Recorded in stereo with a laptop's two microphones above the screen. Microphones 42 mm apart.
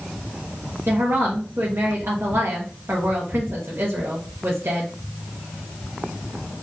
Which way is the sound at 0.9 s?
70° right (ahead or behind).